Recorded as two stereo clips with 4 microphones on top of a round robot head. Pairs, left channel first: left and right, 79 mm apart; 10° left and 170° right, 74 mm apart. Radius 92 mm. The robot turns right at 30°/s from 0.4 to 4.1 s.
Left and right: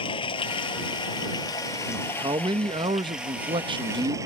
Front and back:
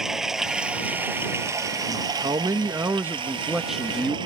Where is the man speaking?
140° right; by 4.2 s 75° right.